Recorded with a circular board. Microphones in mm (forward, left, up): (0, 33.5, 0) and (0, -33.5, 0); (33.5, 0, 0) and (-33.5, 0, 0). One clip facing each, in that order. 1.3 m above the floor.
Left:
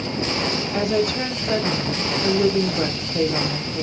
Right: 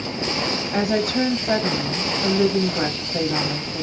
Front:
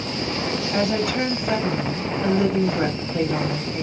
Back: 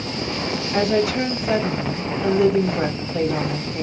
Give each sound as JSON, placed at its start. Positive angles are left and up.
{"t": 0.7, "sound": "a woman speaking", "azimuth_deg": -95, "distance_m": 1.9}